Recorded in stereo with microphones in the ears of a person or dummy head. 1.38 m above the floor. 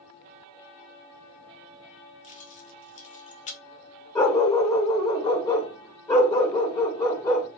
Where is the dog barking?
25° left (ahead or behind), 1.5 m.